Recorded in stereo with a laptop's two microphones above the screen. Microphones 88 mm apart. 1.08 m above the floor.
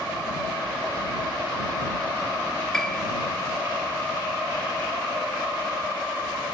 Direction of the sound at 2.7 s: 5° left (ahead or behind).